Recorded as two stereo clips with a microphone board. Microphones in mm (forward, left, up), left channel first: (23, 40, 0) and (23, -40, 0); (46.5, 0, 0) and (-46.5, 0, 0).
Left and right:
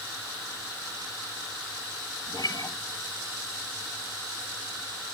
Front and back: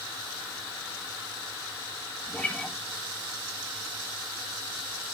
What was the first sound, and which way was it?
A guitar, 75° left.